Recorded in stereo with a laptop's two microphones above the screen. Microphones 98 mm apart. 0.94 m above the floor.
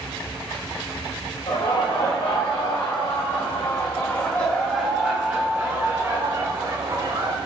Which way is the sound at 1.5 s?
70° left (ahead or behind).